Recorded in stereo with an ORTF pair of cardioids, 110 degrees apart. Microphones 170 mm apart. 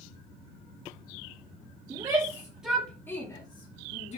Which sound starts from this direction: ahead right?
A shout, at 1.9 s.